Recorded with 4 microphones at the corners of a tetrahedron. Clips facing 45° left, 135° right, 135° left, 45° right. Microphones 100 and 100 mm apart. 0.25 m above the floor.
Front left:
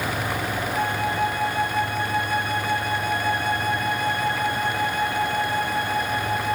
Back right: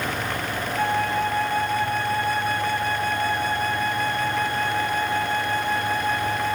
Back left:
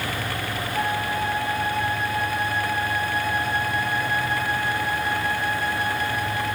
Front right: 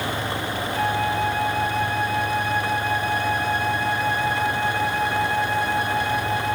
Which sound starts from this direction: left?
A flute, at 0.7 s.